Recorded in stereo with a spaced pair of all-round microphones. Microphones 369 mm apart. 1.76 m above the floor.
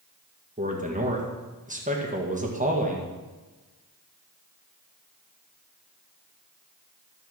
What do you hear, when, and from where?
0.6 s a man speaking: 20° right (ahead or behind), 1.7 m